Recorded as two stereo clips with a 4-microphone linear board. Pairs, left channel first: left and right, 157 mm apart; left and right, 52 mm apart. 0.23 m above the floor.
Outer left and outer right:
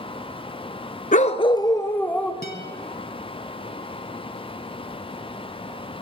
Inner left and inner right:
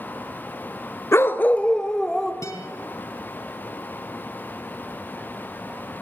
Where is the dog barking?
50° left (ahead or behind), 0.8 m; by 2.3 s 5° left (ahead or behind), 1.9 m.